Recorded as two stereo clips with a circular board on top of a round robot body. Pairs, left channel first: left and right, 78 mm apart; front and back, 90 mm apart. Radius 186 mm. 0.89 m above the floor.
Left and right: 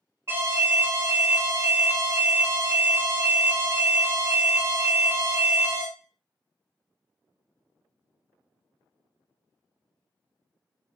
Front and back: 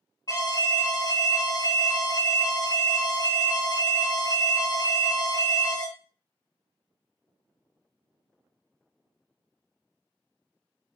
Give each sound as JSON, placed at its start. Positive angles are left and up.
{"t": 0.3, "sound": "an alarm", "azimuth_deg": -35, "distance_m": 2.5}